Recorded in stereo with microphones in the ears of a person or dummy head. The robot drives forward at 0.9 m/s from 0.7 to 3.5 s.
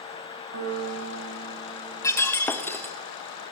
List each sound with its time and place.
0.5 s a piano: 70° right (ahead or behind), 6 m; by 2.9 s 55° right (ahead or behind), 7 m
2.0 s breaking glass: 15° left (ahead or behind), 1.2 m; by 3.0 s 10° left (ahead or behind), 2 m